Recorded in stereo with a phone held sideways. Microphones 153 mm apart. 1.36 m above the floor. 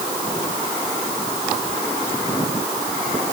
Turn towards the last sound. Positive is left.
No sound to turn to.